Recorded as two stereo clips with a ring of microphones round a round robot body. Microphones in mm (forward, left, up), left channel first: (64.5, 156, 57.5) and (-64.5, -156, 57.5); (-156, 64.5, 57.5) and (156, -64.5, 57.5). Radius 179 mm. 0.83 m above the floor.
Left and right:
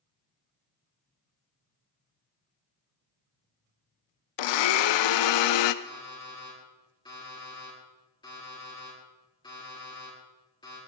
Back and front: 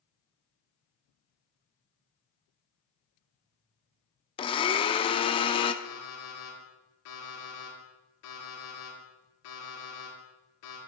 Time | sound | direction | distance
4.4 | a blender | 80° left | 0.6 m
5.8 | an alarm clock | 145° left | 8 m